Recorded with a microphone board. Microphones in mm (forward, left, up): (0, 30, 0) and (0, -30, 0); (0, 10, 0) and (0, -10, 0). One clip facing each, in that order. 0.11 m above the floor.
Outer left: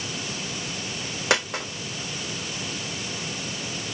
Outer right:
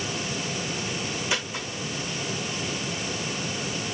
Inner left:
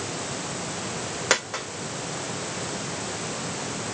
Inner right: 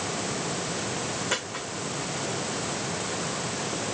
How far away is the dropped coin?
About 3 m.